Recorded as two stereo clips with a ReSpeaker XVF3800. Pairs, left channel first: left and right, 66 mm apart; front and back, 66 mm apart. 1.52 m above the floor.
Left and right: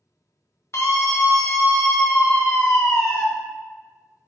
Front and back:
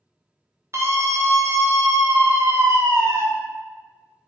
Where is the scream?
135° left, 1.4 m.